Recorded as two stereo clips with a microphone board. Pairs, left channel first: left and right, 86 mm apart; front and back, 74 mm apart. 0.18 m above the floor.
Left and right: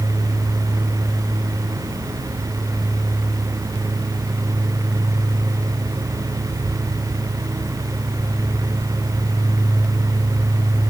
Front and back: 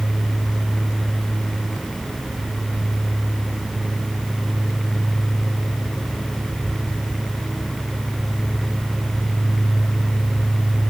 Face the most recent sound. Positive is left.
No sound to turn to.